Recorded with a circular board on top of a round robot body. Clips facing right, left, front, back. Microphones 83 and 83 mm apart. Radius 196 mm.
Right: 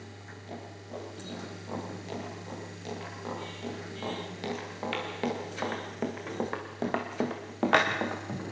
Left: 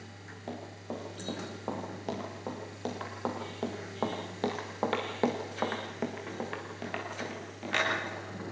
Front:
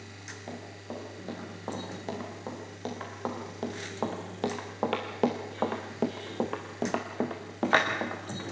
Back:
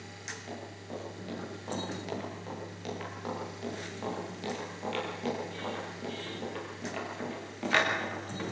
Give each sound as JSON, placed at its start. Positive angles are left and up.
{"t": 0.5, "sound": "running footsteps", "azimuth_deg": 60, "distance_m": 8.0}